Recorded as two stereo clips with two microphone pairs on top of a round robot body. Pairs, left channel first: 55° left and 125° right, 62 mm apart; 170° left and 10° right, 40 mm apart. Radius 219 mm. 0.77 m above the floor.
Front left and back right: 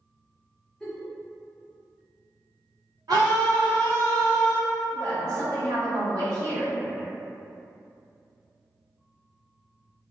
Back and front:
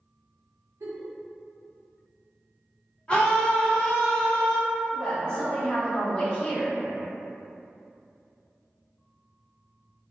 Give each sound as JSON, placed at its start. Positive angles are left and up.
{"t": 0.8, "sound": "a giggle", "azimuth_deg": -30, "distance_m": 0.6}
{"t": 3.1, "sound": "a scream", "azimuth_deg": -125, "distance_m": 1.4}
{"t": 4.9, "sound": "a woman speaking", "azimuth_deg": -120, "distance_m": 1.5}